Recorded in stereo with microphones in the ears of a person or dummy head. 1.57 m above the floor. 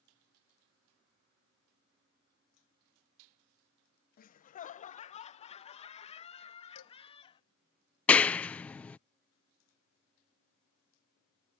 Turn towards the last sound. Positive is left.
turn(degrees=10)  # may be behind; listen again after turning